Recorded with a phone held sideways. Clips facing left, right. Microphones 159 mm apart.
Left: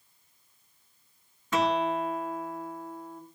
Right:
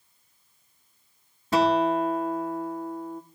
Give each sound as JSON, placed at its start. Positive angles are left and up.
{"t": 1.5, "sound": "a guitar", "side_deg": -35, "distance_m": 1.8}